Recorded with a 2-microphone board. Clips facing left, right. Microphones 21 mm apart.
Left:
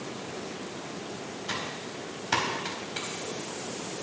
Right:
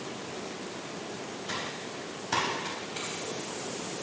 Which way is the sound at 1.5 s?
30° left (ahead or behind).